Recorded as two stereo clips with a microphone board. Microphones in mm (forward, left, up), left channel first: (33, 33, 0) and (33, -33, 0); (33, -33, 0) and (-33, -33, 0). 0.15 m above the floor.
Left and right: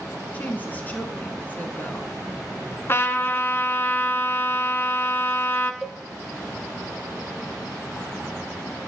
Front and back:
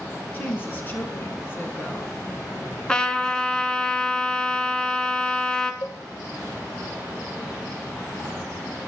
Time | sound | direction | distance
0.3 | a woman speaking | 40° left | 1.7 m
2.9 | a trumpet | 70° left | 1.1 m
5.8 | a cowbell | straight ahead | 1.8 m